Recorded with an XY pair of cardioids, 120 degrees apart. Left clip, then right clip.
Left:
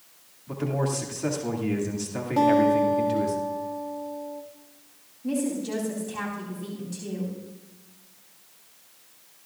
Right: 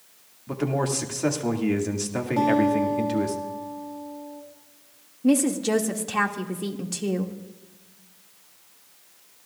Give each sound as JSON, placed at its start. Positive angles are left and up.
{"t": 0.5, "sound": "a man speaking", "azimuth_deg": -30, "distance_m": 2.5}
{"t": 2.4, "sound": "a guitar", "azimuth_deg": 15, "distance_m": 2.5}
{"t": 5.2, "sound": "a woman speaking", "azimuth_deg": -65, "distance_m": 2.0}